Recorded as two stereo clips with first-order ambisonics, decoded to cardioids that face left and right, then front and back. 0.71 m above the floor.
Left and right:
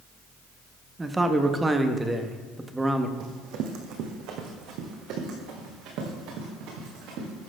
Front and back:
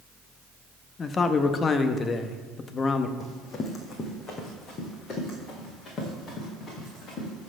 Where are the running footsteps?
65° right, 1.3 m.